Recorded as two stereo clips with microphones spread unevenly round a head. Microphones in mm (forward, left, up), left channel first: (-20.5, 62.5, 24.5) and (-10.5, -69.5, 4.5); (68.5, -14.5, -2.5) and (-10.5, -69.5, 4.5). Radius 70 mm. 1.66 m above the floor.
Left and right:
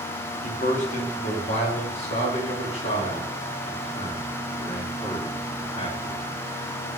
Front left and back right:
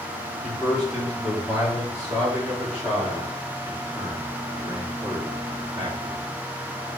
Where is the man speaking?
125° left, 2 m; by 6.2 s 145° left, 5 m.